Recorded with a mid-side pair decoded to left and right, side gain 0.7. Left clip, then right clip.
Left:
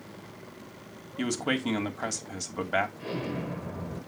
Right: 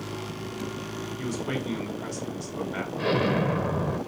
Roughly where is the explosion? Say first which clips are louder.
Right 10 dB; ahead right.